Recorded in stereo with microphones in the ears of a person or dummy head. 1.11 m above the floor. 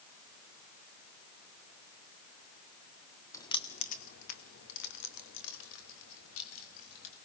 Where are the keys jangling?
10° left (ahead or behind), 1.2 m; by 7.1 s 75° left (ahead or behind), 4.5 m.